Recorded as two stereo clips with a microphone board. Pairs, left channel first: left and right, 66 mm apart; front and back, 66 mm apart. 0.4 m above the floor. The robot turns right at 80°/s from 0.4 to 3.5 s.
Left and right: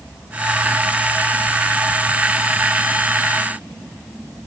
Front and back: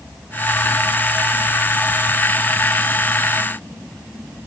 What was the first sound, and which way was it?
Only background noise.